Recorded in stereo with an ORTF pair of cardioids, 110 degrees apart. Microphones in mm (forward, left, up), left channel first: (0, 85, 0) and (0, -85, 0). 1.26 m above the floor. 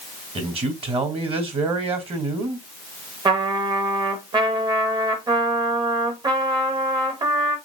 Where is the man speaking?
35° right, 1.9 m.